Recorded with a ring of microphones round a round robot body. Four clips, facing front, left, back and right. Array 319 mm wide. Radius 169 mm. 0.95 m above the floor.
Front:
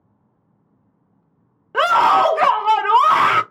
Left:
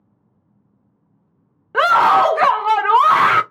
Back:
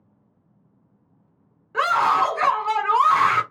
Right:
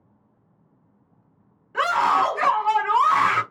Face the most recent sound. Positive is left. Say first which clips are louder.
# left 7 dB, front 5 dB
turn(degrees=50)